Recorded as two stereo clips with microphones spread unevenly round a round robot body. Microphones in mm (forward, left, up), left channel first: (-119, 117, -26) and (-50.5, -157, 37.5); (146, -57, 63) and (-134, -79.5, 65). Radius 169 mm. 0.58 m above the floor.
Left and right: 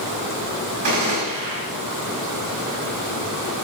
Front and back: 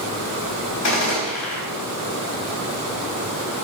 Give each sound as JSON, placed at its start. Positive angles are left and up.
{"t": 0.8, "sound": "a gunshot", "azimuth_deg": -20, "distance_m": 4.0}